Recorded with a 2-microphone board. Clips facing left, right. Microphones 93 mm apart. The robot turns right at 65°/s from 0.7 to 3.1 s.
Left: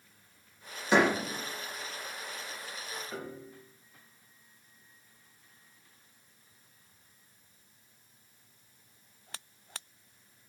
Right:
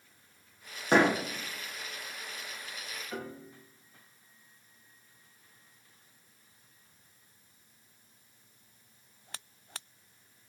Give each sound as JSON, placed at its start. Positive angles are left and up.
{"t": 0.9, "sound": "a door slam", "side_deg": -50, "distance_m": 8.0}
{"t": 3.1, "sound": "a piano", "side_deg": 5, "distance_m": 5.0}